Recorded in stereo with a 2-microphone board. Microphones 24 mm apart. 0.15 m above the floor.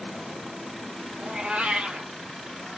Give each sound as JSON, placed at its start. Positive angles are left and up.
{"t": 1.2, "sound": "a cat meowing", "side_deg": -50, "distance_m": 0.6}